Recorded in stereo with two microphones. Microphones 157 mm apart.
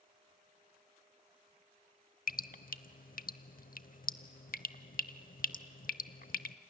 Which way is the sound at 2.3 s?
65° left (ahead or behind).